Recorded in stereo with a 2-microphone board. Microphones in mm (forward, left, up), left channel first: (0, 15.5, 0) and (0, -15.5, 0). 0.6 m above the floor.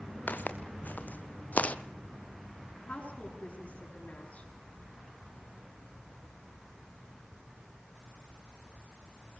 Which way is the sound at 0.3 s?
75° left (ahead or behind).